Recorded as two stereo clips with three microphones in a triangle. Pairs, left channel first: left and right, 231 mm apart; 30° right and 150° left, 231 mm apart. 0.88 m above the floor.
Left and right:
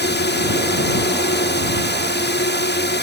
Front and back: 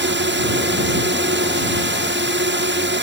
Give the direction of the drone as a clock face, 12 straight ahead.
8 o'clock.